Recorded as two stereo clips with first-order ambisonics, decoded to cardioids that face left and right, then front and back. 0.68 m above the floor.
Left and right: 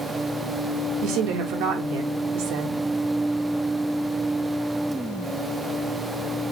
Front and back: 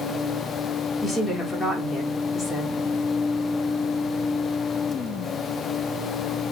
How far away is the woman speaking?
About 1.5 m.